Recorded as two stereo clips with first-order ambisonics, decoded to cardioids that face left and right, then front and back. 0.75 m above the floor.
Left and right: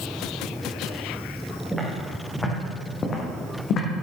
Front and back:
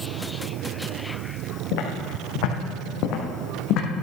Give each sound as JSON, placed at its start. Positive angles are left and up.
{"t": 1.7, "sound": "footsteps", "azimuth_deg": -5, "distance_m": 3.5}